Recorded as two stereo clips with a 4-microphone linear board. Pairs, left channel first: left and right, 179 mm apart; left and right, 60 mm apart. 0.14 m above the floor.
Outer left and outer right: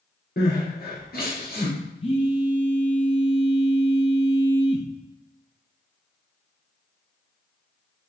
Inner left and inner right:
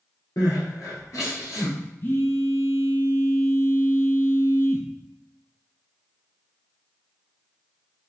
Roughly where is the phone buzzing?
Left.